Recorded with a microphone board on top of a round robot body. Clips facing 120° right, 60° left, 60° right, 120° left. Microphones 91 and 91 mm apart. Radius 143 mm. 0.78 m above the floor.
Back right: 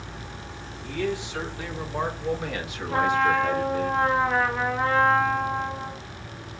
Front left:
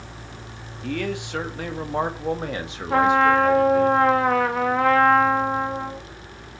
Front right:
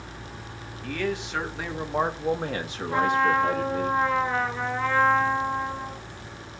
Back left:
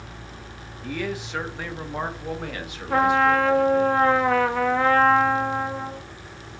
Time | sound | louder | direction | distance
0.8 | a man speaking | front left 1 dB, front right 1 dB | 40° left | 1.7 m
2.9 | a trumpet | front left 5 dB, back left 3 dB | 95° left | 0.7 m